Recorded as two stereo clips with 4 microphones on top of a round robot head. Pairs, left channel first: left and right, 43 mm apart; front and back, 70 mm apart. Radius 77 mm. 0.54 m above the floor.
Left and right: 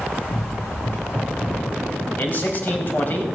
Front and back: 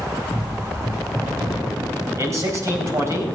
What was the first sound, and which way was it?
Running footsteps, 110° left.